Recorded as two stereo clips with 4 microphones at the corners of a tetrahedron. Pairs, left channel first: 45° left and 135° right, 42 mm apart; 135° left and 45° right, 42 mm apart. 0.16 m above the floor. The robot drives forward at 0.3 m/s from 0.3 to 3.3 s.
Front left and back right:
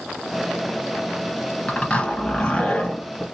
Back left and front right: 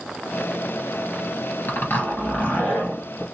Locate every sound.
1.7 s a zipper: 105° left, 2.5 m; by 3.2 s 115° left, 2.5 m